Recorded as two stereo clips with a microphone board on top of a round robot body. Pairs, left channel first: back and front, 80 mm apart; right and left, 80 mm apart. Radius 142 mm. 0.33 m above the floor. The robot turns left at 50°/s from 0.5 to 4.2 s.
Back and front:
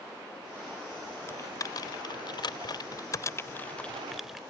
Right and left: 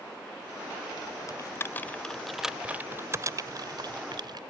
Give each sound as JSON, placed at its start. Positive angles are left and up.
{"t": 1.3, "sound": "typing on a keyboard", "azimuth_deg": -130}